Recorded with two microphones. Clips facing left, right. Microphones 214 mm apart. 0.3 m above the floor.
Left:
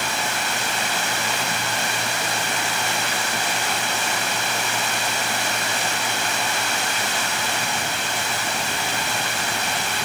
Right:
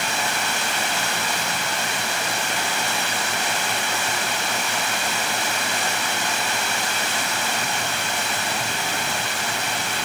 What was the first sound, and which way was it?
Only background noise.